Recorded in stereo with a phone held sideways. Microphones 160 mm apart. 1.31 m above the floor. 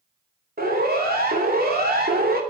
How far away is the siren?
About 4 m.